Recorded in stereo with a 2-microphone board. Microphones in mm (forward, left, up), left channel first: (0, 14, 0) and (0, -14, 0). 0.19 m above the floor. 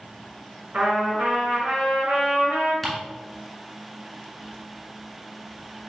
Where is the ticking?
Centre (ahead or behind), 1.8 m.